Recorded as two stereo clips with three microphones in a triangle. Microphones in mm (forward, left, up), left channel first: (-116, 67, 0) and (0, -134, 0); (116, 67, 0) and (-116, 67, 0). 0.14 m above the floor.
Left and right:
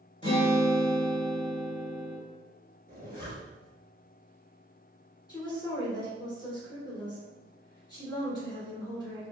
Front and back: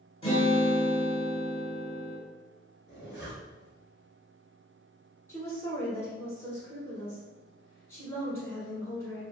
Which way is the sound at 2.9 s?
25° right.